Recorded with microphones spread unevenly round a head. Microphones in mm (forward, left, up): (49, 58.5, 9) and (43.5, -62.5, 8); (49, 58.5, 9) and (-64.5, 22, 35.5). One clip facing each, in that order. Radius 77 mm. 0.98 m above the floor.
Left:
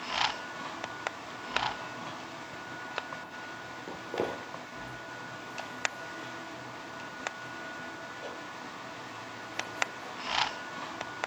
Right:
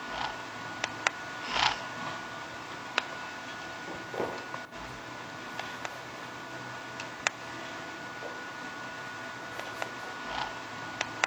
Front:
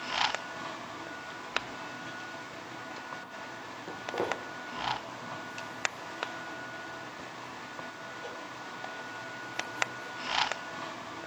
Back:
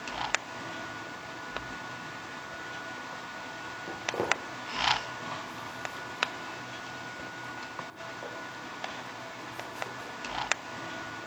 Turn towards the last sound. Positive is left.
turn(degrees=-155)